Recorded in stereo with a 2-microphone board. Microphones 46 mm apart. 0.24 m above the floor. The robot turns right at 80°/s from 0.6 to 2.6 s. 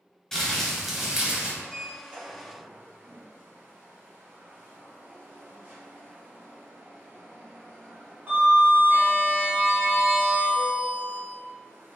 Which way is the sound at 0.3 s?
10° left (ahead or behind).